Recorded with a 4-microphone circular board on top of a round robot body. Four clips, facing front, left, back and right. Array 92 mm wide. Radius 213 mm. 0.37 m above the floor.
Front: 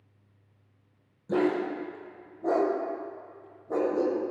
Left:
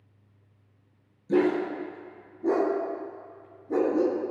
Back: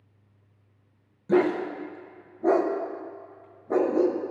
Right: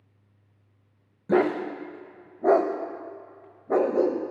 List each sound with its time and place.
1.3 s a dog barking: 105° right, 0.6 m